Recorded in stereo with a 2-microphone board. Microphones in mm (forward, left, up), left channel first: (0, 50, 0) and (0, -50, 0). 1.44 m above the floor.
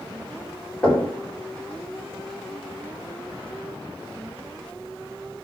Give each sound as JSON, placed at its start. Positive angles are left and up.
{"t": 0.8, "sound": "knocking", "side_deg": 10, "distance_m": 4.0}